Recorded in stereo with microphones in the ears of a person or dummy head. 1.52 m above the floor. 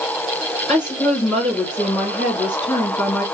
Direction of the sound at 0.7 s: 15° left (ahead or behind).